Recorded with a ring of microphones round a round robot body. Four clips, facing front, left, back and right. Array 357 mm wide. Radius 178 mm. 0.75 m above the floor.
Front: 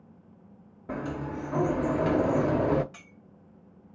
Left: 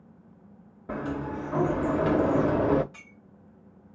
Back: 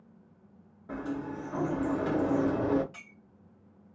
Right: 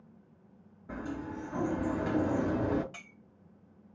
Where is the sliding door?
55° left, 0.5 m.